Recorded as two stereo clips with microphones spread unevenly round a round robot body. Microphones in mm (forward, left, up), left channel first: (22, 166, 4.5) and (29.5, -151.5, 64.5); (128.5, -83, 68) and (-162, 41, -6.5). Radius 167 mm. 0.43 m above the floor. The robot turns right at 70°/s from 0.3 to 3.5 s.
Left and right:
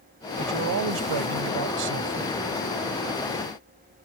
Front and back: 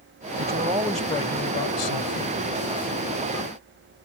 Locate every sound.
0.4 s a man speaking: 155° right; by 2.4 s 15° right